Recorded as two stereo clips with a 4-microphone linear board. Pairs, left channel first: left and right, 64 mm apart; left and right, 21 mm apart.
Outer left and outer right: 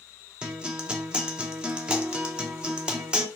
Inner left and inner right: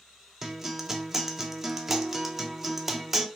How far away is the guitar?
About 0.7 m.